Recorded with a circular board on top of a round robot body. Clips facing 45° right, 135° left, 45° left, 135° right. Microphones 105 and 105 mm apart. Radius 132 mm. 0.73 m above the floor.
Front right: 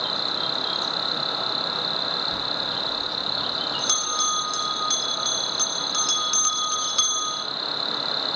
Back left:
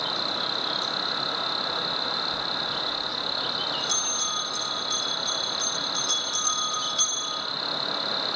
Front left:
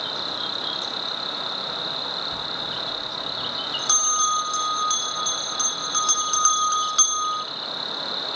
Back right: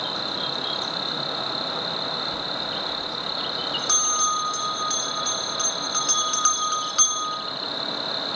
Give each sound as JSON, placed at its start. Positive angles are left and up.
{"t": 0.0, "sound": "an insect", "azimuth_deg": 30, "distance_m": 1.7}
{"t": 2.3, "sound": "a bell", "azimuth_deg": -20, "distance_m": 1.5}